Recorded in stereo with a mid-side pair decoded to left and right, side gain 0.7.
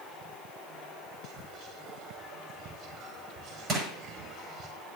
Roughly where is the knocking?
No knocking in this recording.